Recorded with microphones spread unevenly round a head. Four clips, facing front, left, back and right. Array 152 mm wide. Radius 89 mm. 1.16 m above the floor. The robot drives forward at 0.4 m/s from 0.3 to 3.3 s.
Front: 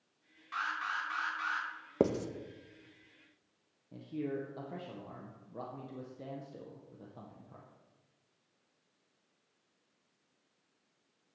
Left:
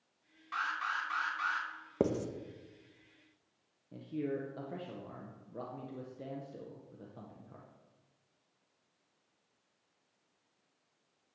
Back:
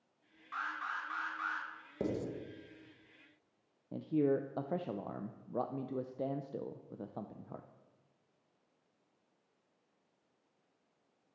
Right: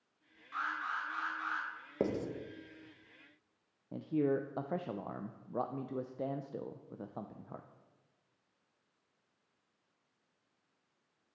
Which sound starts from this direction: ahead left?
An alarm, at 0.5 s.